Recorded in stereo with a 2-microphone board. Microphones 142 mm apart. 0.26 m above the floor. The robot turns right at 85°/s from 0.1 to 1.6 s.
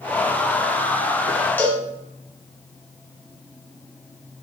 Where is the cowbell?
15° left (ahead or behind), 1.5 m; by 1.9 s 10° left (ahead or behind), 1.5 m.